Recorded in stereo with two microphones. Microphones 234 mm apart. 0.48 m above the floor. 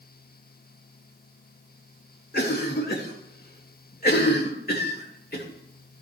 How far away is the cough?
About 1.8 m.